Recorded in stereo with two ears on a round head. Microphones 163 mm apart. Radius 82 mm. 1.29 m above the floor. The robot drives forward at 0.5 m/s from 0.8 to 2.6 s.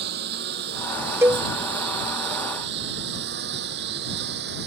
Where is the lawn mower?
60° right (ahead or behind); by 4.7 s 65° right (ahead or behind).